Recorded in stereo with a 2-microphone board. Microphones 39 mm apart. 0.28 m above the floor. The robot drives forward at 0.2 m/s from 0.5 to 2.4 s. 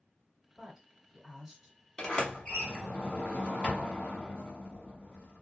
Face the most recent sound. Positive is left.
turn(degrees=20)  # may be behind; listen again after turning